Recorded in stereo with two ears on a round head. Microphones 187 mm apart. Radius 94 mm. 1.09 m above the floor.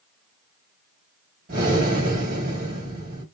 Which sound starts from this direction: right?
Breathing, at 1.5 s.